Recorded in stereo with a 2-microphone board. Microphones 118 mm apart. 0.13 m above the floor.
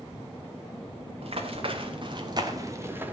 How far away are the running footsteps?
About 3.5 m.